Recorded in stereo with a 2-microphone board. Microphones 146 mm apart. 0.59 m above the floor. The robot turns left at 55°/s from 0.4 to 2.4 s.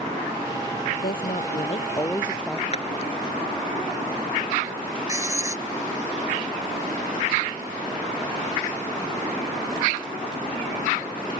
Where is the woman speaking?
80° left; by 2.6 s 5° left.